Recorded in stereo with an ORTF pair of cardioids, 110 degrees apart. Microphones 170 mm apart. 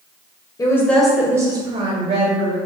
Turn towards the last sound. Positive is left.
turn(degrees=-50)